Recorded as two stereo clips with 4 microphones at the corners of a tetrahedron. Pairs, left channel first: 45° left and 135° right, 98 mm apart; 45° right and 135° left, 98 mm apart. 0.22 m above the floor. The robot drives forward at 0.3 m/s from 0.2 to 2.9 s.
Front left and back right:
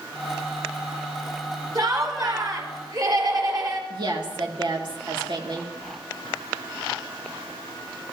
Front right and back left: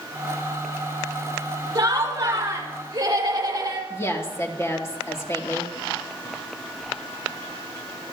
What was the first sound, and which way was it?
Laughter, 175° right.